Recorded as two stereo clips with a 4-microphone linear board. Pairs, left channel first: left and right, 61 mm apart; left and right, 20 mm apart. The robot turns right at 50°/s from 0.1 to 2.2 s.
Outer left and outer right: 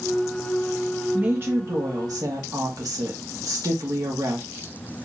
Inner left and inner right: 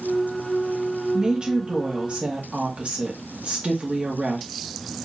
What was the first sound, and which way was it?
A woman speaking, 150° right.